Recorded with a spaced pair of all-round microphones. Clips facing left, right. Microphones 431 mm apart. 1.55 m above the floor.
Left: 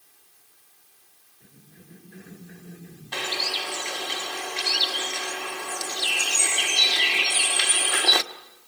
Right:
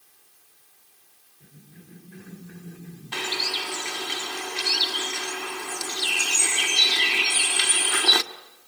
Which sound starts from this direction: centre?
A cough, at 1.4 s.